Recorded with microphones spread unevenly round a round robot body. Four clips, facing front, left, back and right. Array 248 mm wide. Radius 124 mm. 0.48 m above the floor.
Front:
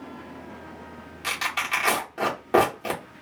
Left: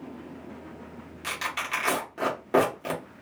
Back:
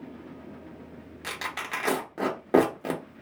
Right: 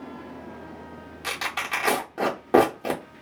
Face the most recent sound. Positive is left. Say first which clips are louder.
# right 2 dB, front 6 dB
turn(degrees=-130)